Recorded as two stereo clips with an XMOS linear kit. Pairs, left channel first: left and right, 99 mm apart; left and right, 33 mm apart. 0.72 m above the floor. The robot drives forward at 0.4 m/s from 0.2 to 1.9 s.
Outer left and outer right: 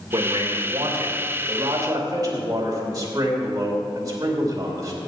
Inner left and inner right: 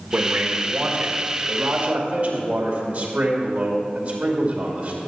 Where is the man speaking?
50° right (ahead or behind), 2 m; by 5.0 s 35° right (ahead or behind), 2.5 m.